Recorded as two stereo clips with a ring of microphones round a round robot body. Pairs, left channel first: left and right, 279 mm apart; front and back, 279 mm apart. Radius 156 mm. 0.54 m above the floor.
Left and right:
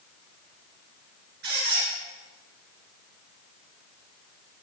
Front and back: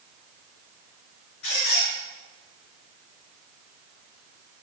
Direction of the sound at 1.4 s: 30° right.